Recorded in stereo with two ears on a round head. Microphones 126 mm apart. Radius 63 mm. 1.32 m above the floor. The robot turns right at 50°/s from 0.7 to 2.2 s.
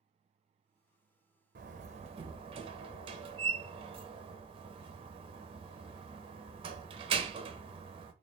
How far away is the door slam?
About 0.7 m.